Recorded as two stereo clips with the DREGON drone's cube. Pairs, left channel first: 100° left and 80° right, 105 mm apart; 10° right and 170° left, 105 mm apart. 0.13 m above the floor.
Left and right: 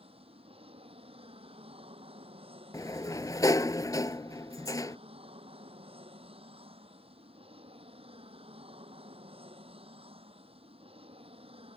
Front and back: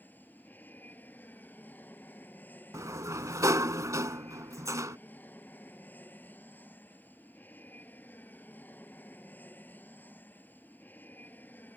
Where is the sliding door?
130° left.